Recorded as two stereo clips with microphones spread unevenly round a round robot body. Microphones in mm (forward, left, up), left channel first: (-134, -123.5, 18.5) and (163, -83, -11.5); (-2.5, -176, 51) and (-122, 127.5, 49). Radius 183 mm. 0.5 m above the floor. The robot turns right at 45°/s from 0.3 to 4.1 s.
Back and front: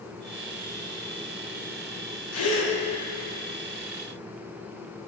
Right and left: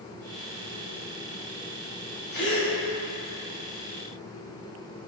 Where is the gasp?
130° right, 1.0 m; by 2.7 s 115° right, 1.0 m.